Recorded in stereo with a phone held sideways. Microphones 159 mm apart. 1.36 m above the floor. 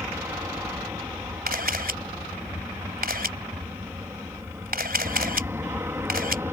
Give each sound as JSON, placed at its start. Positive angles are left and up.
{"t": 0.0, "sound": "an aircraft", "side_deg": -15}
{"t": 1.5, "sound": "a camera shutter", "side_deg": -70}